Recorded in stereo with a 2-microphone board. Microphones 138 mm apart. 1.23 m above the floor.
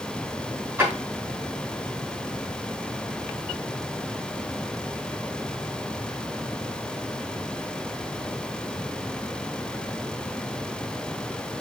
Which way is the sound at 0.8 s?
15° right (ahead or behind).